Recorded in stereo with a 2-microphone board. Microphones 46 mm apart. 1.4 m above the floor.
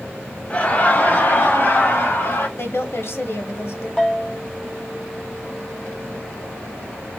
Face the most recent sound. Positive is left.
turn(degrees=15)  # may be behind; listen again after turning